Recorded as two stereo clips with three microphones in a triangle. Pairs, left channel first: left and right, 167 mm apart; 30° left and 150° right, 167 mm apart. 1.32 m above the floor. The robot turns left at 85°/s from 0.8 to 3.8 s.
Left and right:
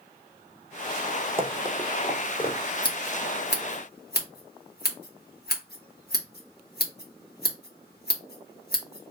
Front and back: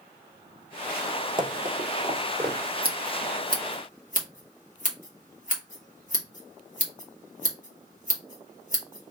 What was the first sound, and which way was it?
Running footsteps, 110° right.